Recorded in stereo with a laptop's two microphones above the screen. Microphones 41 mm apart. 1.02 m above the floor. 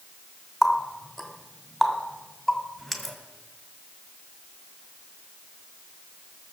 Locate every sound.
0.6 s a running tap: centre (ahead or behind), 2 m